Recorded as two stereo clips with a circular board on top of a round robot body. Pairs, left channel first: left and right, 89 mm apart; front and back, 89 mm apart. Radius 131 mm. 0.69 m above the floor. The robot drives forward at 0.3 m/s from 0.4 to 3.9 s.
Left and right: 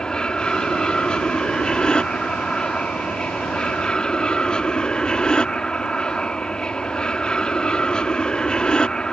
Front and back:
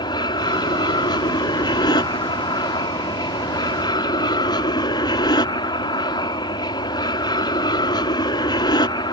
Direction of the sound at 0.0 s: 10° left.